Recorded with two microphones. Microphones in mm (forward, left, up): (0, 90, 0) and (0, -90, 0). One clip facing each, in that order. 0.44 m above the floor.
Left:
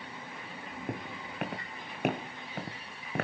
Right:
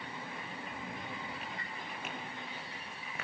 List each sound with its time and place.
0.9 s footsteps: 75° left (ahead or behind), 2 m; by 3.2 s 65° left (ahead or behind), 1.4 m